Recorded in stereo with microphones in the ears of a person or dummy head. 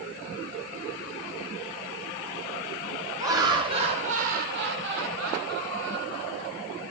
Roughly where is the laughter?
Centre.